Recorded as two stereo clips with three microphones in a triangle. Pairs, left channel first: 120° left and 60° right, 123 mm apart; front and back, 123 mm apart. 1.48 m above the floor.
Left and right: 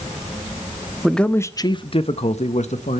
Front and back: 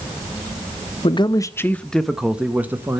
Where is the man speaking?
30° left, 0.5 m; by 3.0 s 110° left, 1.0 m.